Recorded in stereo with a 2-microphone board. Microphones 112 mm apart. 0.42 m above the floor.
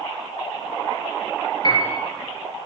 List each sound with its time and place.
1.6 s a piano: 40° left (ahead or behind), 4.5 m